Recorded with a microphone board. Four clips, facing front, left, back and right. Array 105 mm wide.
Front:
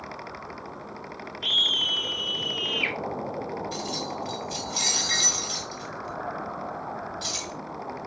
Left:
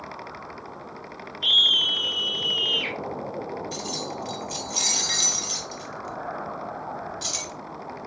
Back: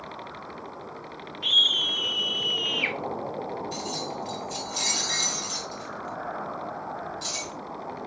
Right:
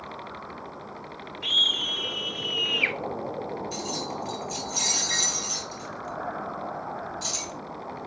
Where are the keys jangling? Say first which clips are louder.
Even, front 1 dB; 55° left, 2 m.